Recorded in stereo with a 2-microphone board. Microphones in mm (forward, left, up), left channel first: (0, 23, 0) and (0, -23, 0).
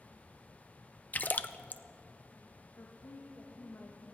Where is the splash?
35° left (ahead or behind), 0.5 m.